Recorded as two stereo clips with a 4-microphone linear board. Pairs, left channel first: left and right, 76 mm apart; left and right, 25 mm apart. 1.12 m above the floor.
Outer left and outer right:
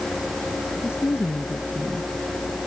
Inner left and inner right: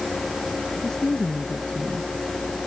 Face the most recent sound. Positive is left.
turn(degrees=30)  # may be behind; listen again after turning